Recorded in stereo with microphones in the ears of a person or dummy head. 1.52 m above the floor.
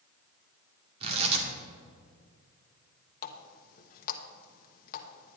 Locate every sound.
1.0 s tearing paper: 35° right (ahead or behind), 2 m
3.2 s a running tap: 55° left (ahead or behind), 1.2 m